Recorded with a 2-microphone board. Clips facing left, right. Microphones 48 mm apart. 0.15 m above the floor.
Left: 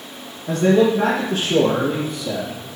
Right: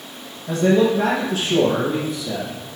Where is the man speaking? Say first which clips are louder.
Left 1 dB; 45° left (ahead or behind), 4 m; by 2.6 s 60° left (ahead or behind), 4.5 m.